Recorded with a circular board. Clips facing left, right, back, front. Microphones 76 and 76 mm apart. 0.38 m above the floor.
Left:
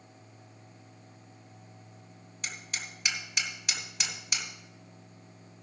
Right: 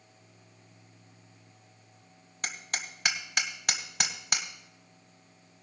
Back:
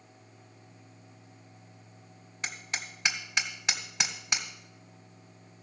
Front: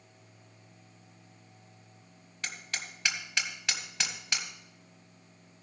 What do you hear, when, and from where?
2.4 s hammering: 115° right, 1.5 m